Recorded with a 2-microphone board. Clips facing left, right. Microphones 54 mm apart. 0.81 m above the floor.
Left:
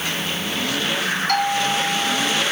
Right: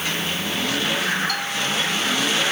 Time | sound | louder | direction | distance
1.3 | a doorbell | left 5 dB | 55° left (ahead or behind) | ?